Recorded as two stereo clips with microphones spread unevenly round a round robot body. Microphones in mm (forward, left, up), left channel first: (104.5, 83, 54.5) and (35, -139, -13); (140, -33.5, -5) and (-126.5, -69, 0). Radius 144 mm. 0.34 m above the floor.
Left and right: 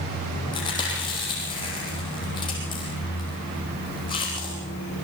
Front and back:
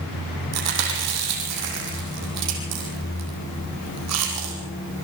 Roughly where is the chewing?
Behind left.